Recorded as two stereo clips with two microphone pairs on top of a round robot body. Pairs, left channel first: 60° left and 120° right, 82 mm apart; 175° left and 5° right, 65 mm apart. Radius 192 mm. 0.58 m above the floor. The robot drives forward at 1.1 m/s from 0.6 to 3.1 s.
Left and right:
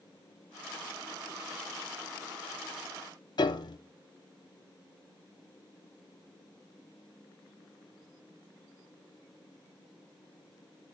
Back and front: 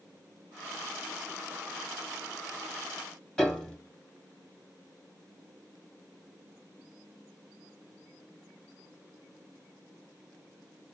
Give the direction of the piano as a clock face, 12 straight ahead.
9 o'clock.